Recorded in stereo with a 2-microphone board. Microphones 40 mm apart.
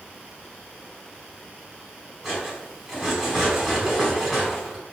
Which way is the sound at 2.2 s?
15° right (ahead or behind).